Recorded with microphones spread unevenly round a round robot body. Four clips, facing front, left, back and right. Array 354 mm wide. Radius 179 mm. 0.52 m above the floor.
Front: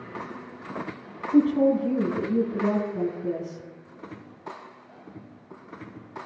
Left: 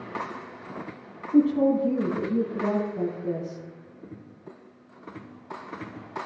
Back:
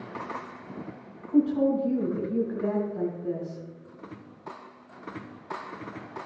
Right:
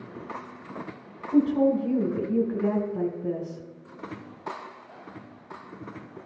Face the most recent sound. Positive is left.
turn(degrees=-60)